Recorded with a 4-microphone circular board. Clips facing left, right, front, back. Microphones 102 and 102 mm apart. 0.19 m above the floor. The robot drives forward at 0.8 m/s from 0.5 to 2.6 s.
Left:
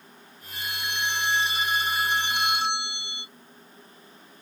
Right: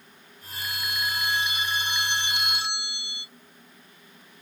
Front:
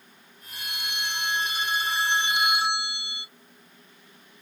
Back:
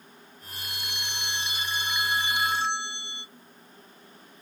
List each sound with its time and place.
0.5 s a phone ringing: 25° left; by 3.3 s 75° left